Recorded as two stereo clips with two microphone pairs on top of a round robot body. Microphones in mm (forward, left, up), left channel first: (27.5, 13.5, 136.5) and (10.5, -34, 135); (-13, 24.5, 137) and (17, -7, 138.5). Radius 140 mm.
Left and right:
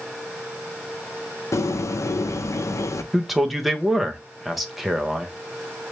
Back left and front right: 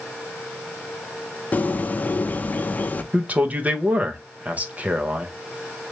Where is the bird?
85° left, 0.6 m.